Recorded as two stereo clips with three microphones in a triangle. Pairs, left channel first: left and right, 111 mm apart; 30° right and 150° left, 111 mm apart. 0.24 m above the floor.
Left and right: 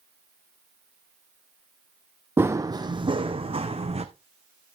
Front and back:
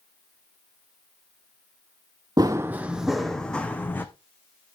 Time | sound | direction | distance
2.4 | running footsteps | 160° right | 0.5 m